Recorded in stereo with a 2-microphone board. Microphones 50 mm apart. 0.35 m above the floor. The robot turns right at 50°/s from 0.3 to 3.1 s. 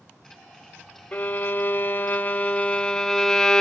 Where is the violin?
60° left, 0.8 m; by 3.6 s 155° left, 0.8 m.